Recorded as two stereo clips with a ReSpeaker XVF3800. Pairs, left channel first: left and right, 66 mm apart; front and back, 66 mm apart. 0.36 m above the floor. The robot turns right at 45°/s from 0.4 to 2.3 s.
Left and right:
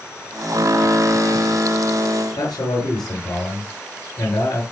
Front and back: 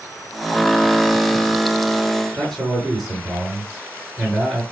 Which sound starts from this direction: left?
A man speaking, at 2.4 s.